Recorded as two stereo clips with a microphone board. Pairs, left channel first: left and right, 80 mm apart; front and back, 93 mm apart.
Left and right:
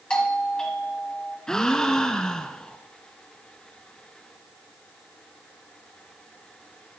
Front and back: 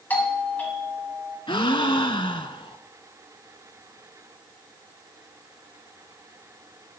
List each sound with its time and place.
0.1 s a doorbell: 30° left, 1.4 m
1.5 s a gasp: 10° left, 0.6 m